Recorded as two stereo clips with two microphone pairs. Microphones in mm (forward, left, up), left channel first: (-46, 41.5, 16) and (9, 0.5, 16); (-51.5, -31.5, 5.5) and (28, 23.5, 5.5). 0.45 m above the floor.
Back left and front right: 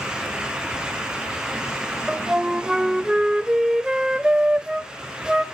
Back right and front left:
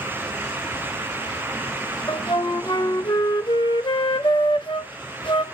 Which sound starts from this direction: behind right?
A flute, at 2.1 s.